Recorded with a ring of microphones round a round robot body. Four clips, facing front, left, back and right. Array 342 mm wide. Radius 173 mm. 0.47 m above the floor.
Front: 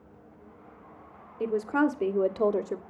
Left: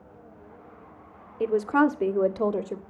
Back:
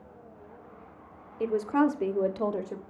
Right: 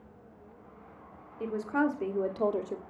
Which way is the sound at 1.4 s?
100° left.